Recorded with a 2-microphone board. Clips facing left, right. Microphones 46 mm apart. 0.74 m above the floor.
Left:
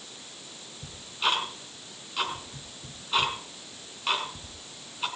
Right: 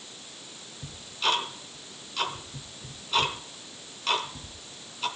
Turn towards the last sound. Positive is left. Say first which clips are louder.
# even
turn(degrees=15)  # may be behind; listen again after turning